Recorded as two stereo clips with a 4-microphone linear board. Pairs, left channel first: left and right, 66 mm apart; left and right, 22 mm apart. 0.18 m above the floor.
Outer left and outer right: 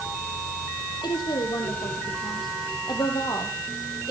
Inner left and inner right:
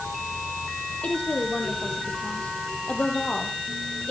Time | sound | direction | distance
1.0 | a woman speaking | 75° left (ahead or behind) | 6.5 m